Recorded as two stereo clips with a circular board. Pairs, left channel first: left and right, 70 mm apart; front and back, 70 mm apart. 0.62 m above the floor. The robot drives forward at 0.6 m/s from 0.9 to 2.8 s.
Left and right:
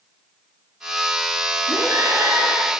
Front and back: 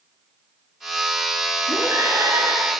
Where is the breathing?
135° right, 6 m.